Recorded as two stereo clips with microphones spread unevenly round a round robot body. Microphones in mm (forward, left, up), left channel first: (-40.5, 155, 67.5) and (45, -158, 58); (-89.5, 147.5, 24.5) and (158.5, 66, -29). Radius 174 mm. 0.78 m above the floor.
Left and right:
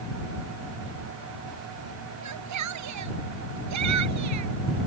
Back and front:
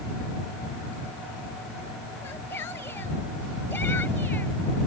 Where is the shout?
115° right.